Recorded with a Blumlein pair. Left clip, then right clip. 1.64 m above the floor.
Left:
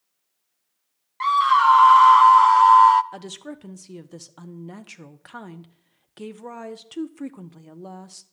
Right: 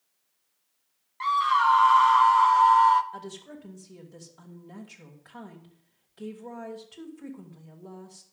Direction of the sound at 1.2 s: 20° left.